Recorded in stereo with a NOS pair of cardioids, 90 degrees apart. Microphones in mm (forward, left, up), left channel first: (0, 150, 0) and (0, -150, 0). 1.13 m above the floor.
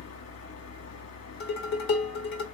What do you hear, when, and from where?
0.0 s a fan: 55° left, 1.7 m
1.4 s dishes clattering: 65° left, 1.6 m